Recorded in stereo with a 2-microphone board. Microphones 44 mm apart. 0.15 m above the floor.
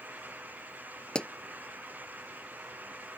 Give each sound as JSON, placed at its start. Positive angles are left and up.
{"t": 1.1, "sound": "a pop", "side_deg": 20}